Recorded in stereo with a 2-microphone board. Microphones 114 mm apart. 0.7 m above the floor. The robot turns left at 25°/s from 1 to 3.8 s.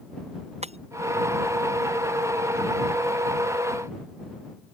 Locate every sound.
0.6 s breaking glass: 70° right (ahead or behind)